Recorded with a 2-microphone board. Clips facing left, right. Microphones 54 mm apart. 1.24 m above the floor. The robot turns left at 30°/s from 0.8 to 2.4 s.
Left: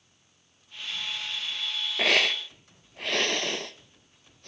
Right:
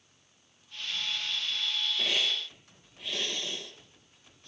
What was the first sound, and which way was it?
A hiss, 75° left (ahead or behind).